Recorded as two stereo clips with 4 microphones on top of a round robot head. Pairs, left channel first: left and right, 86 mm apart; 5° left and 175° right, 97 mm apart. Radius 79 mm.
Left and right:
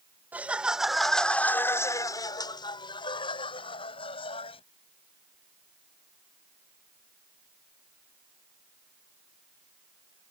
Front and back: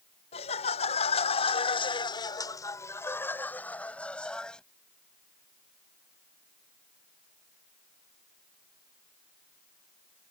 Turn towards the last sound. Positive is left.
turn(degrees=85)